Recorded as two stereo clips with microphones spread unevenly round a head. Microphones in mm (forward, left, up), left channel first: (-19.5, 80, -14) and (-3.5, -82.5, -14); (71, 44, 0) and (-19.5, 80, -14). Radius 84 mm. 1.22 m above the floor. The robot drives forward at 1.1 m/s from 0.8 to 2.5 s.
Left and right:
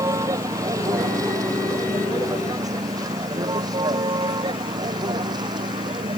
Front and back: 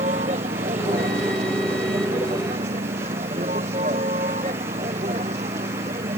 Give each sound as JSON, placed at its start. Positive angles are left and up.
{"t": 0.0, "sound": "a vehicle", "azimuth_deg": -155}